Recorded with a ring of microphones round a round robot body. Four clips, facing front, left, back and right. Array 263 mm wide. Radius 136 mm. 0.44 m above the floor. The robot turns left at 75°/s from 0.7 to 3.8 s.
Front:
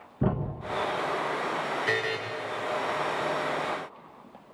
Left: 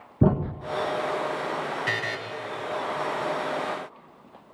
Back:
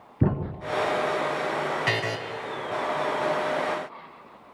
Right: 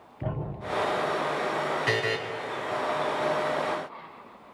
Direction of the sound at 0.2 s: 115° left.